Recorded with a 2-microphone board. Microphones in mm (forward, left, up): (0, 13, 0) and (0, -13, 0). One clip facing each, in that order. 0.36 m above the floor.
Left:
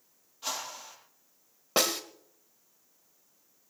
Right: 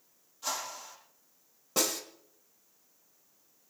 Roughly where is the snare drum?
Left.